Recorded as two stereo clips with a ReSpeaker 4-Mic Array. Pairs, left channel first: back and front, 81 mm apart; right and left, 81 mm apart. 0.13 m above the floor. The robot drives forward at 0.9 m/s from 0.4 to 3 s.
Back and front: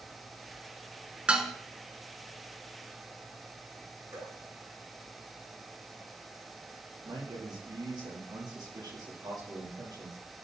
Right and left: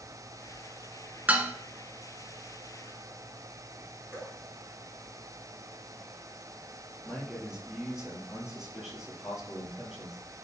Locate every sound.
1.3 s dishes clattering: 55° left, 0.8 m; by 1.5 s 95° left, 0.7 m
4.1 s dripping: 25° left, 4 m
7.0 s a man speaking: 10° left, 3 m